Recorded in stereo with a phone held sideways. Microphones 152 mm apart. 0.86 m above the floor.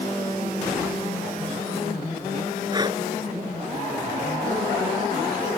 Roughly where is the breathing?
Right.